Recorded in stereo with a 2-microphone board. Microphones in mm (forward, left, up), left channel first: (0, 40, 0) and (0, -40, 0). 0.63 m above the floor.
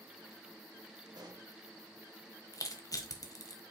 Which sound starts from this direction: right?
A pop, at 1.1 s.